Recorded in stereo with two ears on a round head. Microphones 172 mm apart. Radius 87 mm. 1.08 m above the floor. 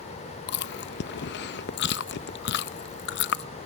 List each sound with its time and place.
0.5 s chewing: 60° left (ahead or behind), 0.6 m